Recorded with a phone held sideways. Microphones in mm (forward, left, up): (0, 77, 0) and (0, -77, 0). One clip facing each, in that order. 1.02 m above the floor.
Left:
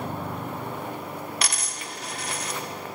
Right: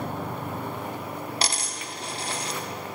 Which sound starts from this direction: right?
A dropped coin, at 1.4 s.